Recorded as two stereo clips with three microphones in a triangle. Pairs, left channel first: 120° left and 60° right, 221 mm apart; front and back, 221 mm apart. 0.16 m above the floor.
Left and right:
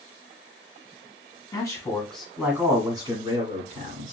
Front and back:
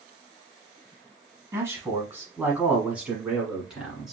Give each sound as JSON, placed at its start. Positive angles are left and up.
{"t": 1.5, "sound": "a man speaking", "azimuth_deg": 135, "distance_m": 1.2}